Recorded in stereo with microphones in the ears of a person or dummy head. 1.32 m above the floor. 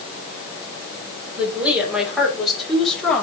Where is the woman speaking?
10° right (ahead or behind), 4 m; by 3.2 s 5° left (ahead or behind), 3 m.